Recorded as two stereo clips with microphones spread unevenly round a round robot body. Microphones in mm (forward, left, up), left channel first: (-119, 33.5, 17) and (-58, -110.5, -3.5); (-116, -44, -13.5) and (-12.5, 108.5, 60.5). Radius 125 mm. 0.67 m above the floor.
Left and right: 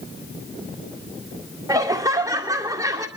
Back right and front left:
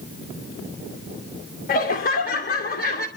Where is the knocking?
No knocking in this recording.